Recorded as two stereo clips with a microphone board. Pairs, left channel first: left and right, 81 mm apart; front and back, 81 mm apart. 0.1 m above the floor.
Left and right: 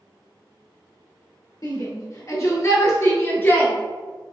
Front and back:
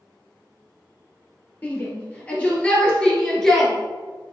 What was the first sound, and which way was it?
A shout, 65° left.